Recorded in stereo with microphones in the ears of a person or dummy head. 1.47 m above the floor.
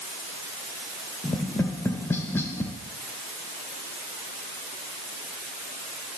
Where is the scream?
I don't hear a scream.